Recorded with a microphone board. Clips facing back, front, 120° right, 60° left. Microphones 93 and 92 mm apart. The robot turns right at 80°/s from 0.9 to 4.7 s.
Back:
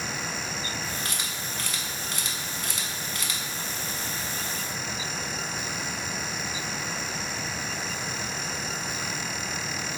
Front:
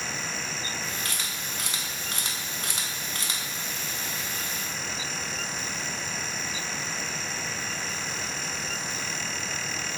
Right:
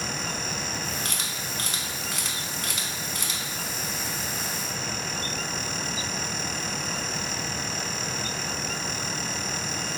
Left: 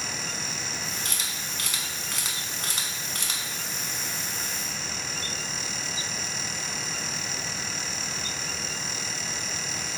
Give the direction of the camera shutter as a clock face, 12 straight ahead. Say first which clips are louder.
Back 1 dB, right 2 dB; 4 o'clock.